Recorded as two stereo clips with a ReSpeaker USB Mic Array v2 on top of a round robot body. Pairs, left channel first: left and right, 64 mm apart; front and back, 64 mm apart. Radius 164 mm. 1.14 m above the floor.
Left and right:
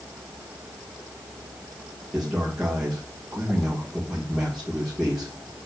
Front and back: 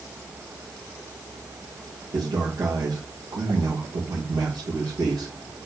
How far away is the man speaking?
About 2.5 m.